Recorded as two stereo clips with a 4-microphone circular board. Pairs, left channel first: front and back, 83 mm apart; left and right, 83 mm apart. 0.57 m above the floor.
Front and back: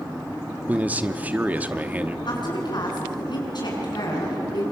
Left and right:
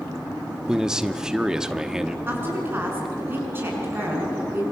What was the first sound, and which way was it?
A man speaking, 160° right.